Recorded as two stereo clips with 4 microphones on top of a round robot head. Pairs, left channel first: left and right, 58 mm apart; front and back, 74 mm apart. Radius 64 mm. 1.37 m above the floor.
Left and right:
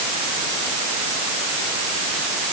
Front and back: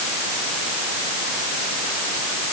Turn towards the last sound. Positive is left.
No sound to turn to.